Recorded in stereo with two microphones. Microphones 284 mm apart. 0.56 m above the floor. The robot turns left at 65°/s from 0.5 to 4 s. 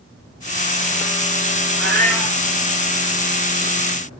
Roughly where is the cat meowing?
Behind right.